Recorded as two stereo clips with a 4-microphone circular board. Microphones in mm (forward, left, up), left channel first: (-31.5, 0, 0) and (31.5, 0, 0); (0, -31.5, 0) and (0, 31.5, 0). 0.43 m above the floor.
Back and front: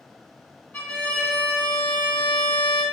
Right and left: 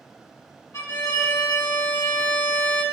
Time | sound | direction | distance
0.7 | a violin | 120° right | 1.6 m